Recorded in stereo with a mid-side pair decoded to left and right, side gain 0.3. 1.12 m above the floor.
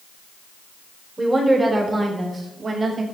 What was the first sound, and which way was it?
A woman speaking, 35° right.